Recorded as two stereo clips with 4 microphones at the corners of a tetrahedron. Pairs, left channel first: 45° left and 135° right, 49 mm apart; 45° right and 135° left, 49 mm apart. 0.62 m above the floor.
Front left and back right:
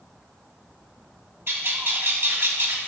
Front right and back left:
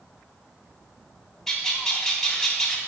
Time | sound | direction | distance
1.5 | a bird | 125° right | 1.1 m